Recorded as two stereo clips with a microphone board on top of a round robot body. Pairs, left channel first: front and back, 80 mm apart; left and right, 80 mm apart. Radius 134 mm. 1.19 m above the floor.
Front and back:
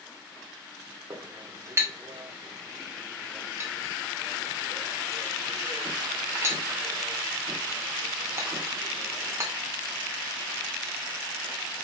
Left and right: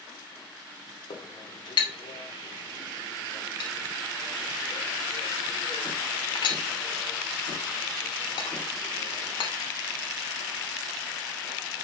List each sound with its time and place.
1.1 s a clink: 120° left, 2.5 m